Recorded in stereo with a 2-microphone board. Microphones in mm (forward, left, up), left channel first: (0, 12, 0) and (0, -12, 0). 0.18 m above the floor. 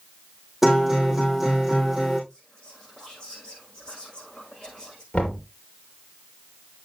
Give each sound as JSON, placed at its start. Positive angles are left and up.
{"t": 0.6, "sound": "a guitar", "side_deg": -15, "distance_m": 6.5}
{"t": 2.3, "sound": "whispering", "side_deg": 35, "distance_m": 9.5}
{"t": 5.1, "sound": "knocking", "side_deg": 65, "distance_m": 3.0}